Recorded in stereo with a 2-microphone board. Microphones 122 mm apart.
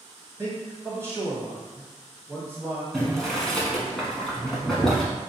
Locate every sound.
0.4 s a man speaking: 20° right (ahead or behind), 1.2 m
2.9 s boiling: 5° left (ahead or behind), 0.9 m